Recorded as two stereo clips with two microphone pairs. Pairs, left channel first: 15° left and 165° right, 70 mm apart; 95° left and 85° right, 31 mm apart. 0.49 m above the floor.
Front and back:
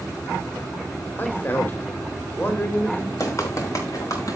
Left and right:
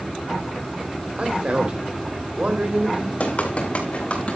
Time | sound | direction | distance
1.2 | a man speaking | 45° right | 2.5 m
3.2 | running footsteps | 60° left | 5 m